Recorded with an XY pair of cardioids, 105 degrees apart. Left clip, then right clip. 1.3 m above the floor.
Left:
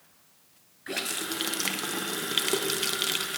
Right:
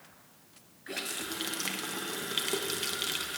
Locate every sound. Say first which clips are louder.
0.9 s a running tap: left 5 dB; 35° left, 0.8 m